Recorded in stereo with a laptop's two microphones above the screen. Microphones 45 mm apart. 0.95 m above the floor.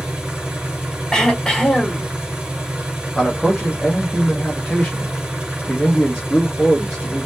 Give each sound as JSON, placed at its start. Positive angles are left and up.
{"t": 0.0, "sound": "an engine running", "side_deg": -20, "distance_m": 2.0}
{"t": 1.1, "sound": "throat clearing", "side_deg": 15, "distance_m": 1.5}
{"t": 3.1, "sound": "a man speaking", "side_deg": 15, "distance_m": 1.2}